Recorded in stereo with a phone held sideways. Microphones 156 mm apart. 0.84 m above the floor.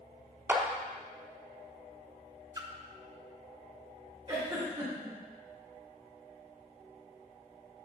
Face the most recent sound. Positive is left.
turn(degrees=-25)  # may be behind; listen again after turning